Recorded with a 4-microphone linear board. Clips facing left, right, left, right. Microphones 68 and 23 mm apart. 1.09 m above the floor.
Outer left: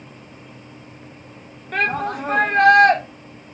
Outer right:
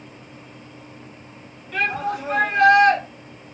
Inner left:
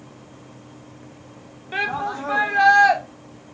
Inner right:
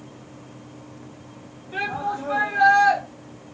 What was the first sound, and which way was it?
A shout, 50° left (ahead or behind).